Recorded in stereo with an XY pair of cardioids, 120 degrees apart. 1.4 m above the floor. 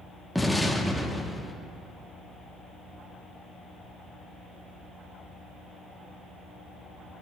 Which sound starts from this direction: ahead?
An explosion, at 0.3 s.